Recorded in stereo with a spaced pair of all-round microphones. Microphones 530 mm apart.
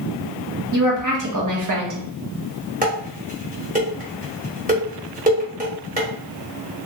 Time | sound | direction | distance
0.7 | a woman speaking | 35° right (ahead or behind) | 0.7 m
2.8 | dishes clattering | 15° right (ahead or behind) | 0.9 m